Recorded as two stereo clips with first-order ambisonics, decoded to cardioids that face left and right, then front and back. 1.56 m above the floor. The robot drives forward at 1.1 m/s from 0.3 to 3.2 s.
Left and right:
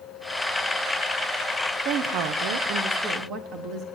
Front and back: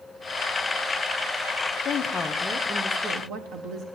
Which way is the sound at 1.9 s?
50° right.